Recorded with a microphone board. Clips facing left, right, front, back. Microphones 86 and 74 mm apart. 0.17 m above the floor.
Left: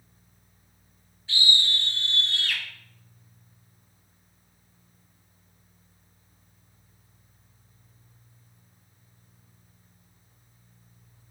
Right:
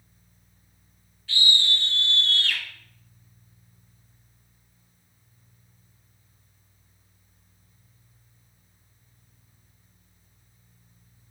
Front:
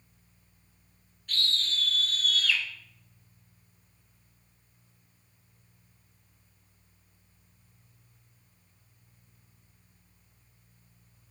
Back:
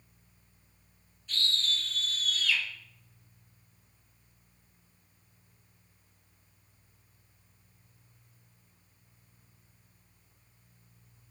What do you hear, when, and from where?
1.3 s a scream: 25° left, 3 m; by 2.6 s 15° left, 1.9 m